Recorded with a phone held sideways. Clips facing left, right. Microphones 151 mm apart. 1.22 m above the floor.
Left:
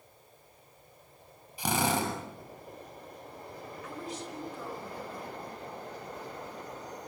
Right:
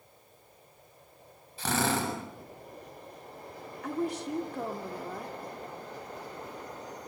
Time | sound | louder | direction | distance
1.6 | a drill | even | 15° left (ahead or behind) | 6 m
3.8 | a woman speaking | right 10 dB | 65° right (ahead or behind) | 3 m